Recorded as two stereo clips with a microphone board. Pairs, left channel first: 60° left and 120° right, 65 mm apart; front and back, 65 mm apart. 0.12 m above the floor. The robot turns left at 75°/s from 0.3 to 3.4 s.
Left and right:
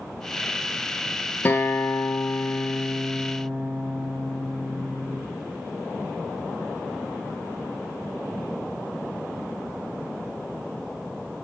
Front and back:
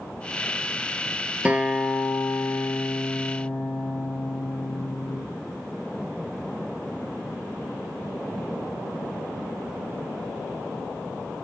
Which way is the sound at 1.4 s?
115° left.